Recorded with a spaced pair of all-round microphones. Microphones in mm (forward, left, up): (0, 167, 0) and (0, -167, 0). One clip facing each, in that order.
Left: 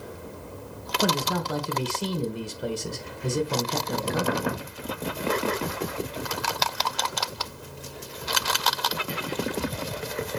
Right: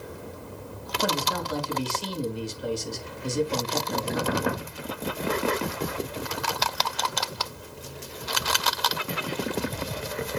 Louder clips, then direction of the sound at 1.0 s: Left 3 dB; 65° left (ahead or behind).